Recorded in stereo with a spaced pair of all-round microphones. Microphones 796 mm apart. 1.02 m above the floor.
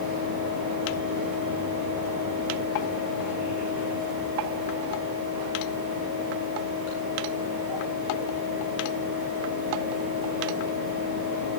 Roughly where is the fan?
Right.